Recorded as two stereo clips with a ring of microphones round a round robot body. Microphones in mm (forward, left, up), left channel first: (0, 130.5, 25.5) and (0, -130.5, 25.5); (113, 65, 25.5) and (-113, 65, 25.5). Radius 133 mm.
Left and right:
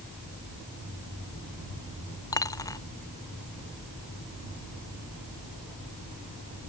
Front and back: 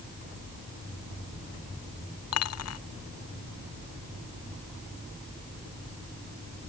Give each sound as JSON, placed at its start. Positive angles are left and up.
{"t": 2.3, "sound": "a dropped coin", "azimuth_deg": 10}